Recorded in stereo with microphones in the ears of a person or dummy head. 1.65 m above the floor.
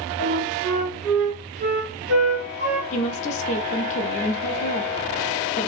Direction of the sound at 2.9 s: 40° left (ahead or behind).